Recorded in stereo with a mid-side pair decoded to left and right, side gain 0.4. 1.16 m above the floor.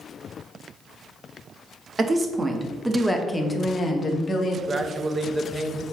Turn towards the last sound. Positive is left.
turn(degrees=-35)